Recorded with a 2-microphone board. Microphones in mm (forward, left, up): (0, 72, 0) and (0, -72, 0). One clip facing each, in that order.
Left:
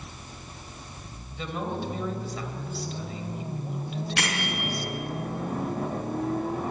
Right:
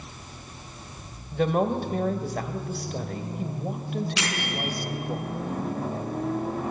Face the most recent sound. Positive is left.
turn(degrees=55)  # may be behind; listen again after turning